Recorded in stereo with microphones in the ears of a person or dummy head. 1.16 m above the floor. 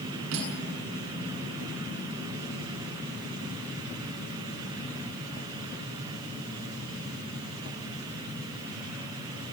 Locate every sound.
0.3 s cutlery clinking: 85° right, 7 m